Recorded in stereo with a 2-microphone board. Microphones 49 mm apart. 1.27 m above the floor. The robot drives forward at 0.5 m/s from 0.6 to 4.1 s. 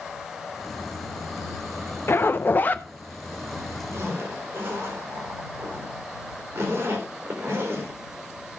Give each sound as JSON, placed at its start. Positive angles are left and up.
{"t": 2.1, "sound": "a zipper", "side_deg": 50, "distance_m": 0.7}
{"t": 3.9, "sound": "a zipper", "side_deg": -55, "distance_m": 4.5}